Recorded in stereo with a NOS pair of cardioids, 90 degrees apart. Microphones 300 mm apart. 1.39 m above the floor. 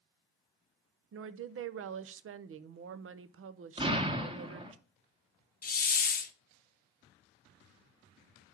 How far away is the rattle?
I don't hear a rattle.